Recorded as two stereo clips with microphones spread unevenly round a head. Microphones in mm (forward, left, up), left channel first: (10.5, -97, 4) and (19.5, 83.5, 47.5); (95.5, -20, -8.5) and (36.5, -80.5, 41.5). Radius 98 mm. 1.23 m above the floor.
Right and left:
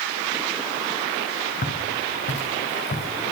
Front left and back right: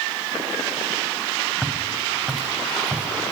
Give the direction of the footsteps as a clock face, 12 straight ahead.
1 o'clock.